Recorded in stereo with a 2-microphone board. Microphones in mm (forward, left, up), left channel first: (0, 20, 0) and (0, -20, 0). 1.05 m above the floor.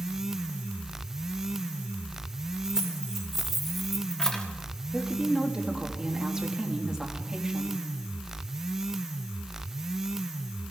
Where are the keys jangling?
15° right (ahead or behind), 2.5 m; by 4.5 s 20° left (ahead or behind), 1.2 m.